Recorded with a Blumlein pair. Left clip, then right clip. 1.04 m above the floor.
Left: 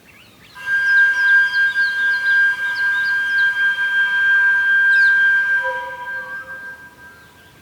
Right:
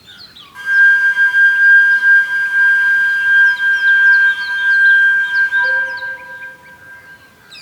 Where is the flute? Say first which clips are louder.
Right 4 dB; 55° right, 1.8 m.